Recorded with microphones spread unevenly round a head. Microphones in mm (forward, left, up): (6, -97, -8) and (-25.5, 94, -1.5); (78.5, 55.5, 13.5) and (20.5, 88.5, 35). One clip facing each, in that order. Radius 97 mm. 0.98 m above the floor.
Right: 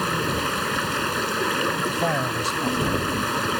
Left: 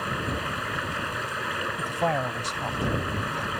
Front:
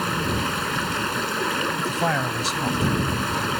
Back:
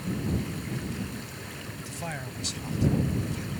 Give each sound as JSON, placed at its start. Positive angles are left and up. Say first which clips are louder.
{"t": 0.0, "sound": "running water", "louder": "right 6 dB, front 7 dB", "azimuth_deg": -40}
{"t": 1.8, "sound": "a man speaking", "louder": "right 3 dB, front 11 dB", "azimuth_deg": 0}